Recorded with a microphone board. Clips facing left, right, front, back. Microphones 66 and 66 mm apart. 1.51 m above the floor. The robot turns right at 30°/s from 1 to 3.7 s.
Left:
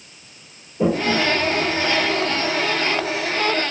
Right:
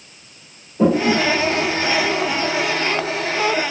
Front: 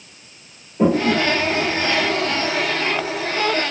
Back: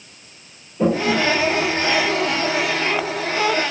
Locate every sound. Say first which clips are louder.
0.8 s a toilet flushing: right 3 dB, front 1 dB; 60° right, 1.4 m; by 2.5 s 15° right, 1.4 m